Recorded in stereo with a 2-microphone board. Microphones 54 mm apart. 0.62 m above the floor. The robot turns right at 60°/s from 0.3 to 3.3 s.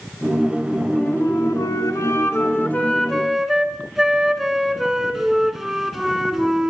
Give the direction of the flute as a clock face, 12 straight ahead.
11 o'clock.